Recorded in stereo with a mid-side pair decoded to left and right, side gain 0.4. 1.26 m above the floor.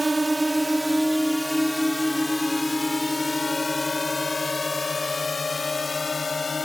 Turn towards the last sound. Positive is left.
turn(degrees=30)